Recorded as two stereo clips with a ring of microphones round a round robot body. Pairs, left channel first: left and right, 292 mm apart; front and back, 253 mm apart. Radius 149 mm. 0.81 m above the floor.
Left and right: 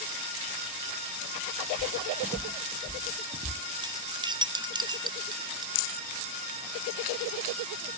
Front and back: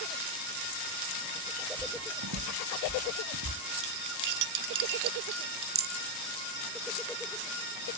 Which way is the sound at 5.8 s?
130° left.